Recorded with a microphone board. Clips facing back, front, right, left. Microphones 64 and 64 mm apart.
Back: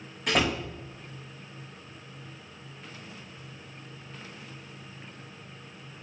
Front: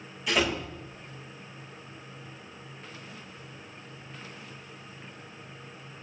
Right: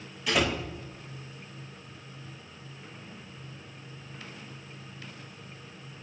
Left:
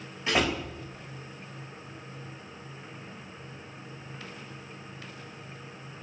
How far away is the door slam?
About 6 m.